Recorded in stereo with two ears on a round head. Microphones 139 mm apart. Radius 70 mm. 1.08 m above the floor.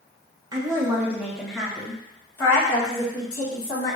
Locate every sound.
0.5 s a woman speaking: 25° right (ahead or behind), 1.2 m; by 4.0 s 35° left (ahead or behind), 2 m